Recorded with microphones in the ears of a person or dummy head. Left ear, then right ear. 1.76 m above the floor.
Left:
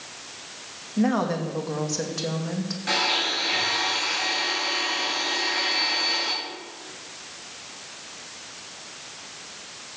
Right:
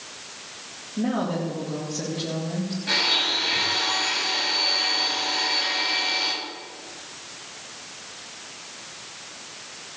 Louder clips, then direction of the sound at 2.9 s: Right 2 dB; 55° left (ahead or behind).